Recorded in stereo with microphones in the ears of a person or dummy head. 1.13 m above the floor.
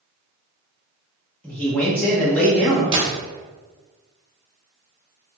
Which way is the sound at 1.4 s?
5° left (ahead or behind).